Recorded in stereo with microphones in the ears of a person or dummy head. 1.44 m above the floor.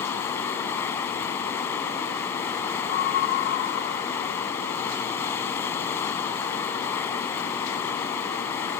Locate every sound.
0.0 s running water: 15° left (ahead or behind)
2.9 s a scream: 50° left (ahead or behind)